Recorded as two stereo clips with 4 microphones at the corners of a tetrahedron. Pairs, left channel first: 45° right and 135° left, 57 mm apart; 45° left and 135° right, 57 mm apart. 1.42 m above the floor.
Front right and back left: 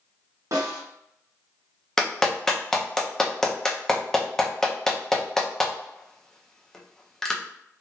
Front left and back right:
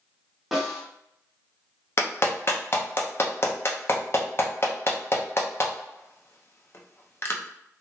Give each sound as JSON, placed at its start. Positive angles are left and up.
{"t": 0.5, "sound": "a snare drum", "azimuth_deg": 140, "distance_m": 1.2}
{"t": 2.0, "sound": "a clap", "azimuth_deg": 35, "distance_m": 0.6}